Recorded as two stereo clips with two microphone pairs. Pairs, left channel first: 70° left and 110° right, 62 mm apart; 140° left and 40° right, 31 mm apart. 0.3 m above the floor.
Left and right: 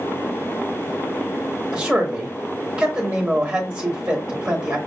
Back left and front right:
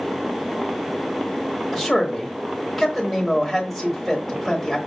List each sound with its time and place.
1.7 s a man speaking: 125° right, 0.9 m